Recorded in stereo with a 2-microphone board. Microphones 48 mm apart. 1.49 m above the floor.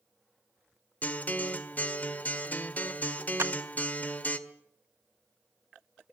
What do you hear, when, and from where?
1.0 s a guitar: 35° left (ahead or behind), 1.8 m
3.4 s a clap: 75° right (ahead or behind), 1.0 m